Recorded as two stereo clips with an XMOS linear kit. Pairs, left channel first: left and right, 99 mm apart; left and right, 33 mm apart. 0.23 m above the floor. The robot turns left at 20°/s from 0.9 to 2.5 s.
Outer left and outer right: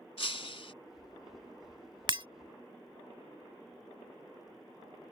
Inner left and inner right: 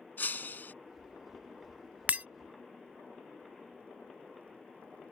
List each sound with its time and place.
0.2 s breaking glass: 65° left (ahead or behind)
2.1 s breaking glass: 45° right (ahead or behind); by 2.3 s 50° right (ahead or behind)